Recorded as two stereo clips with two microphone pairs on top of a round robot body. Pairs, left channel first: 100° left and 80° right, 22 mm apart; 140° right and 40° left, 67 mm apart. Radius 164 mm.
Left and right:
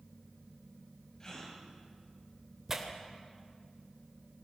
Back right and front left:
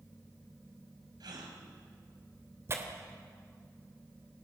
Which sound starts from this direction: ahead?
Tearing paper, at 2.7 s.